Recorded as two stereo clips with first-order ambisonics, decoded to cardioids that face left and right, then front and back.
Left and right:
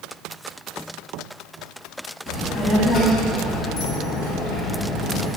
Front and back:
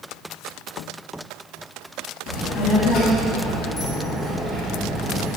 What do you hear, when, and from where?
2.3 s a child speaking: 25° left, 2.5 m; by 5.3 s 120° left, 1.6 m